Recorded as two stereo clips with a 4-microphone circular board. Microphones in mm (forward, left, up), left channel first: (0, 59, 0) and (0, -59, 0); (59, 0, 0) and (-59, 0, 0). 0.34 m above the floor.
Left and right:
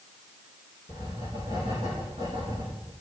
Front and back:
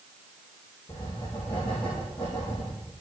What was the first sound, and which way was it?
Writing, 45° right.